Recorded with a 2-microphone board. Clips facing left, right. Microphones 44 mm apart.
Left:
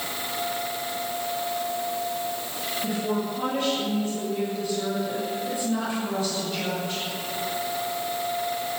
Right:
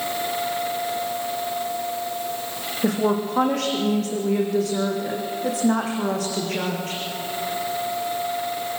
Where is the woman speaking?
80° right, 7.5 m.